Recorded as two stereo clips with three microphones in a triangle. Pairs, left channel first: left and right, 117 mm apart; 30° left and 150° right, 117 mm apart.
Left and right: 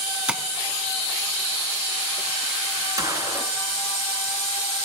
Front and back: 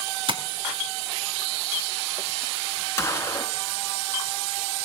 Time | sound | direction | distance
0.3 | tapping | 170° right | 0.7 m
3.0 | a gunshot | 35° right | 0.8 m